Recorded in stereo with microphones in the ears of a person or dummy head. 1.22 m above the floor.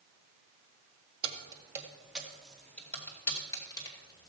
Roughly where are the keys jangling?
Right.